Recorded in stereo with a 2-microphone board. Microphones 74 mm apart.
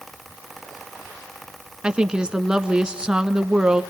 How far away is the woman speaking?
About 1.1 m.